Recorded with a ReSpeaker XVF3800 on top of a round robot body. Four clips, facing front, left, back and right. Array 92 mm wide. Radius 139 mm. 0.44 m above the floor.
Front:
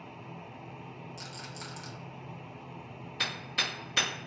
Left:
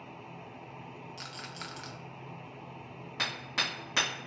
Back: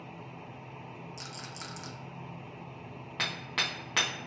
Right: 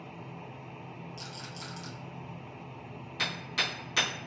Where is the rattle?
110° left, 0.8 m.